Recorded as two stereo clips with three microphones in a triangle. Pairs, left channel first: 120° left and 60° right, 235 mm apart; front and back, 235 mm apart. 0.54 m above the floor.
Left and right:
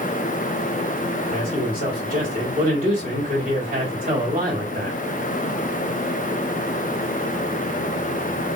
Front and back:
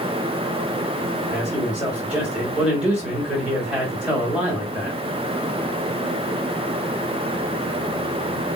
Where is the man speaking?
95° right, 1.7 m.